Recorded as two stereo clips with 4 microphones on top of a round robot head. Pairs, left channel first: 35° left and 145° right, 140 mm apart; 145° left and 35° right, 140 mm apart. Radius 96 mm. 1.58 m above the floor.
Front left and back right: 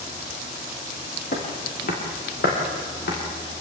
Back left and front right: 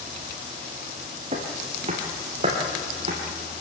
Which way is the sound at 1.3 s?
5° left.